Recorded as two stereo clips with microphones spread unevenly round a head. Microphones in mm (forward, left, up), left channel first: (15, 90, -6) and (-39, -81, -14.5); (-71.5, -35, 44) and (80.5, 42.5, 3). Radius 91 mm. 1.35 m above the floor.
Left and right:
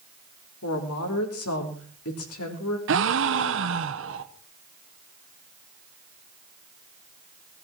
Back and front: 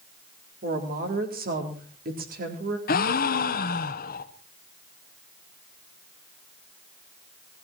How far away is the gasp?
About 1.2 m.